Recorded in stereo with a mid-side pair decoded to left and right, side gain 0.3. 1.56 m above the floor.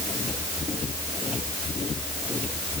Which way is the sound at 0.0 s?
55° left.